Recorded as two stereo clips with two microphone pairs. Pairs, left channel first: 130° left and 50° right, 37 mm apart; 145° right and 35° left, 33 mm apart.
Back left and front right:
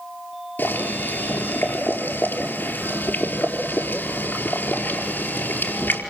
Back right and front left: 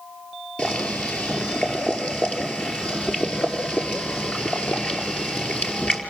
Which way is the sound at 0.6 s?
165° left.